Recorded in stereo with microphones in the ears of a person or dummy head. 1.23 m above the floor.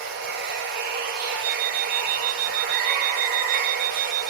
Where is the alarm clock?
35° right (ahead or behind), 0.6 m.